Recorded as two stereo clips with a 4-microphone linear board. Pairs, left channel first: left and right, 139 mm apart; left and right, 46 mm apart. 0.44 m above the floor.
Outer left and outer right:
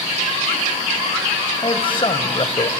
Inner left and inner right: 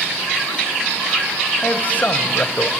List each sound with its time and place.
1.6 s a man speaking: 35° left (ahead or behind), 2.5 m; by 2.7 s 40° left (ahead or behind), 1.6 m